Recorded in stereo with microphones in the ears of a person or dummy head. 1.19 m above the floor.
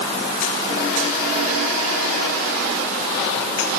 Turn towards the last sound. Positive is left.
No sound to turn to.